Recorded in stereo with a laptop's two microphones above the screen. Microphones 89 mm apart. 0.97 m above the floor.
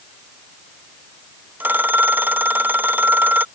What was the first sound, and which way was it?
A phone ringing, 20° right (ahead or behind).